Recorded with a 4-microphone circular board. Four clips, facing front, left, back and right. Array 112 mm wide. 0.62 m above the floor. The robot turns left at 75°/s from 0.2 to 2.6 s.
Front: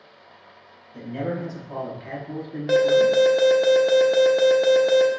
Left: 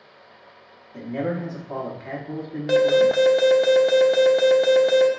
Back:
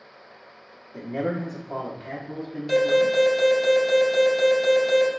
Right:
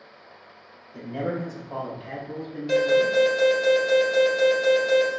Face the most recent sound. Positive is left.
turn(degrees=45)